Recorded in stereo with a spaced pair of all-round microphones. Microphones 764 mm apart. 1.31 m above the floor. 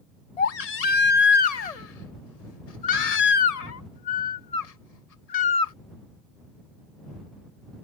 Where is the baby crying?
55° left (ahead or behind).